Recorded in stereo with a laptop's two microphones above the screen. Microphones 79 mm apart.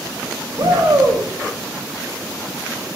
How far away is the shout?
About 2.5 m.